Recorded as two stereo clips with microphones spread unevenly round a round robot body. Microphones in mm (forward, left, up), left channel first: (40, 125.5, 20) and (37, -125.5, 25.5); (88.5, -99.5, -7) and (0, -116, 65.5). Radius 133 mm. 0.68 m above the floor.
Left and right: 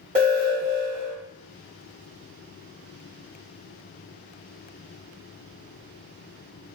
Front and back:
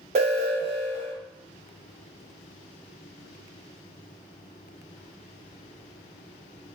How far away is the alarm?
About 1.0 m.